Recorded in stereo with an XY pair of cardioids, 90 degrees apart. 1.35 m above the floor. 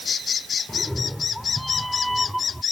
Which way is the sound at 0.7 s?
5° left.